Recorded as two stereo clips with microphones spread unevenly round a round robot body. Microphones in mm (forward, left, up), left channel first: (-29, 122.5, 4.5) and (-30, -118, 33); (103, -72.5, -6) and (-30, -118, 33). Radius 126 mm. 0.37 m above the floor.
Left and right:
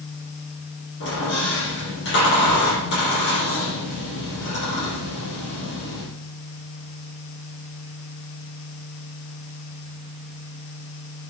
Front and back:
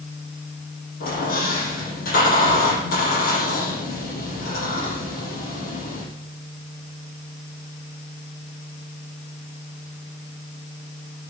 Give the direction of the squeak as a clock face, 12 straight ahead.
11 o'clock.